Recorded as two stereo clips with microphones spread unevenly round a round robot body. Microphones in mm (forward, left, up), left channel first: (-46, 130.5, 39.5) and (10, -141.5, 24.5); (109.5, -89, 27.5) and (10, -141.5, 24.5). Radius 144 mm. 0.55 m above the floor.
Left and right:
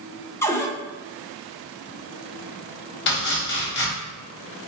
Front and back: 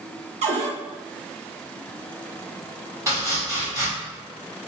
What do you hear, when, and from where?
0.4 s a cupboard door: 175° right, 0.5 m
3.1 s chopping: 145° left, 1.2 m